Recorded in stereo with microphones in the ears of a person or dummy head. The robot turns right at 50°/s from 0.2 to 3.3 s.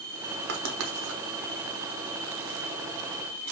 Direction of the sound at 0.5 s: 65° right (ahead or behind).